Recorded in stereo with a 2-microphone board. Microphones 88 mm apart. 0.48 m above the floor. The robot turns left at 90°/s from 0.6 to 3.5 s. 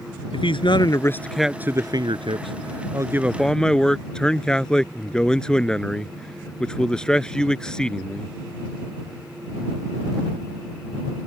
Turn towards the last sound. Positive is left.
turn(degrees=170)